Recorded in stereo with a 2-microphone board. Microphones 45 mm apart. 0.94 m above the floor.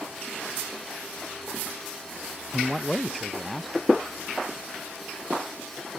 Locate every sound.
2.5 s a man speaking: centre (ahead or behind)